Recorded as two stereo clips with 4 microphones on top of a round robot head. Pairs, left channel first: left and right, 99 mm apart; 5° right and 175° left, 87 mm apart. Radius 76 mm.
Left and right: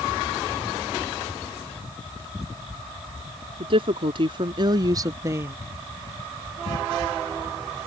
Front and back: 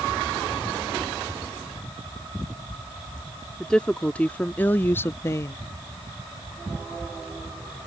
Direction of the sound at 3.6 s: 85° right.